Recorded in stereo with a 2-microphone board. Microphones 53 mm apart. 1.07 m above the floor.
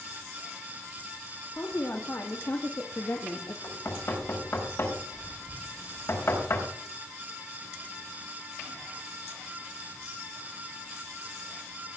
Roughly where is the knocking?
Left.